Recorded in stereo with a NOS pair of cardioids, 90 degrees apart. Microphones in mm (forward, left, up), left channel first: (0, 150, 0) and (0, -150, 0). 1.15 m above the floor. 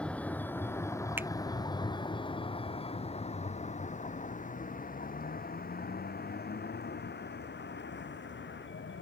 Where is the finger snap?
5° right.